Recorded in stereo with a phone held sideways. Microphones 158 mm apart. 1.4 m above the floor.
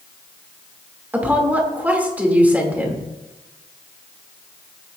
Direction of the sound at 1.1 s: 10° right (ahead or behind).